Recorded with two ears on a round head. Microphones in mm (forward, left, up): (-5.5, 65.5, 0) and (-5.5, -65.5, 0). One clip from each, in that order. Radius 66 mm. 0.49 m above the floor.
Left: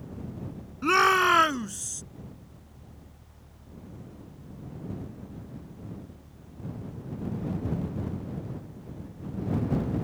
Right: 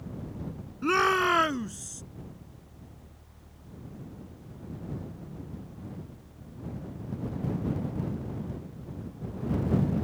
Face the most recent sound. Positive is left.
turn(degrees=25)  # may be behind; listen again after turning